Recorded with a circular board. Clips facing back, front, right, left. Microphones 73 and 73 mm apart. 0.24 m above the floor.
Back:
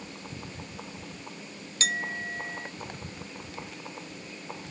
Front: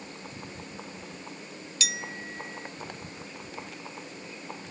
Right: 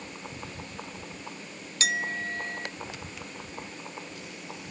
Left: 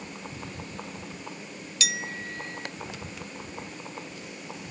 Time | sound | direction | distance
1.8 | a clink | 140° right | ?